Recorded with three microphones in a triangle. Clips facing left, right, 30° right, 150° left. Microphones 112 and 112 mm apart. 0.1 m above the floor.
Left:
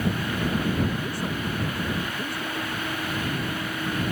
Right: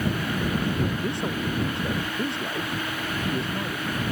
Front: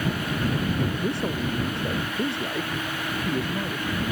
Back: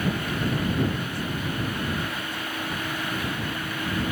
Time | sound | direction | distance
1.0 | a man speaking | 25° right | ?